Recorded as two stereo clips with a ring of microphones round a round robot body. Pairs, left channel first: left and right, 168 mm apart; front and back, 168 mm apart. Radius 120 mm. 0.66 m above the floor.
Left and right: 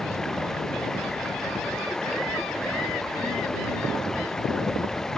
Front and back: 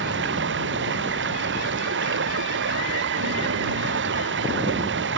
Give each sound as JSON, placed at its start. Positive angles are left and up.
{"t": 0.0, "sound": "running water", "azimuth_deg": 180}